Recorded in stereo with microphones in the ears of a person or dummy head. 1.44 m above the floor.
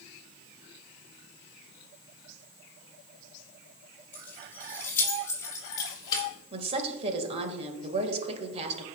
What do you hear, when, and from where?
4.1 s keys jangling: 10° left (ahead or behind), 3.5 m; by 6.3 s 25° left (ahead or behind), 2.5 m
6.5 s a woman speaking: 35° right (ahead or behind), 1.8 m